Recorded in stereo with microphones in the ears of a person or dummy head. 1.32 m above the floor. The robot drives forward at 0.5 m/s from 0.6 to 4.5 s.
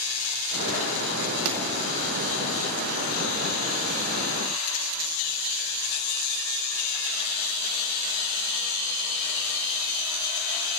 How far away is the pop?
About 3.5 m.